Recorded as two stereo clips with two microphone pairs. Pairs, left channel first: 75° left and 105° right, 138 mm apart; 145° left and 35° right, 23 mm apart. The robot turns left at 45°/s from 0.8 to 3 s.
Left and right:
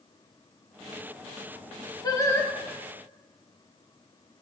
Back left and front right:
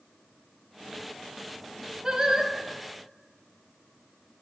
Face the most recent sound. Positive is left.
turn(degrees=-20)